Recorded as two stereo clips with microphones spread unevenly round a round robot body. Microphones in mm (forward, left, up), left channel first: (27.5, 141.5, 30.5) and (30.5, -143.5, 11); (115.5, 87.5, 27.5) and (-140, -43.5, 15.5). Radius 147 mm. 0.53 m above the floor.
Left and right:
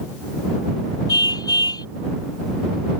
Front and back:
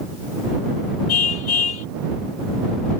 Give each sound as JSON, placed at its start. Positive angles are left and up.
{"t": 1.1, "sound": "a car horn", "azimuth_deg": 15}